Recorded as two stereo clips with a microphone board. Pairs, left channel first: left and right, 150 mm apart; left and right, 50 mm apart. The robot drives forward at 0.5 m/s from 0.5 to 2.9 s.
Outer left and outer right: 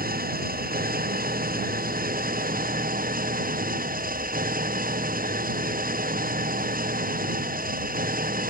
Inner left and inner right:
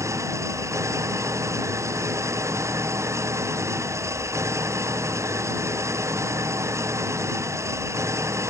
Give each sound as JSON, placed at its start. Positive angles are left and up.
{"t": 0.0, "sound": "an engine running", "side_deg": -75}